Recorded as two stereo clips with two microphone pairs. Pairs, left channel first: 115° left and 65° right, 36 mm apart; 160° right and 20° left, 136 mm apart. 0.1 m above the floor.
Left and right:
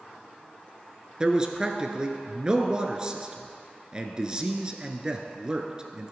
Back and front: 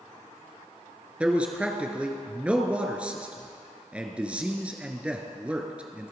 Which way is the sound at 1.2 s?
45° right.